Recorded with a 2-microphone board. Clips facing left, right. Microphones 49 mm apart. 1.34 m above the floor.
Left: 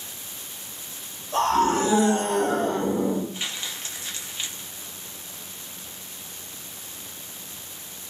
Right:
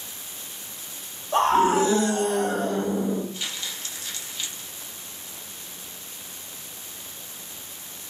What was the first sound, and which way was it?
A scream, 30° right (ahead or behind).